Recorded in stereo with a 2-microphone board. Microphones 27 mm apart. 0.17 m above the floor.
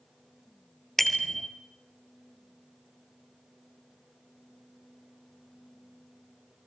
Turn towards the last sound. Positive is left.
turn(degrees=5)  # may be behind; listen again after turning